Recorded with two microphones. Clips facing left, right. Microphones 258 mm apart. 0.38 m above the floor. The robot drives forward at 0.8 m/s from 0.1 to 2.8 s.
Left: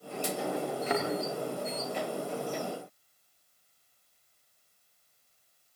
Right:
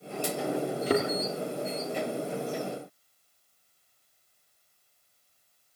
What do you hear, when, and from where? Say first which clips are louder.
0.9 s a thud: right 7 dB; 35° right (ahead or behind), 3 m